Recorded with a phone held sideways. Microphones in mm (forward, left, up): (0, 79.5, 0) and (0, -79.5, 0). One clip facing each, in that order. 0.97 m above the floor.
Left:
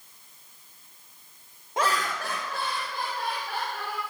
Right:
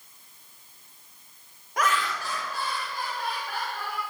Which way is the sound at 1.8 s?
25° left (ahead or behind).